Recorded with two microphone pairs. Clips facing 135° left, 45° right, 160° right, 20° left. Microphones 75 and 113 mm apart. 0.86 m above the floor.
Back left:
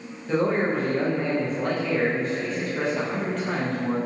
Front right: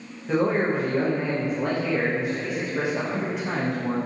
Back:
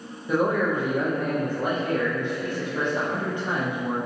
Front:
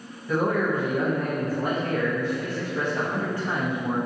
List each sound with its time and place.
0.3 s a man speaking: 110° right, 0.5 m